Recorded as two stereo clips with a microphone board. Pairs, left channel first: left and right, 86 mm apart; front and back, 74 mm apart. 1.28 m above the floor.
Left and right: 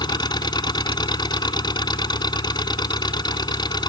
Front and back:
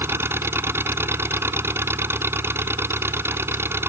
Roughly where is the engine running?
Behind left.